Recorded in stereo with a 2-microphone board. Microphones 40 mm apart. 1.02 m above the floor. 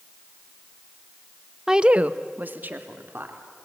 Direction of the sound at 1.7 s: 10° right (ahead or behind).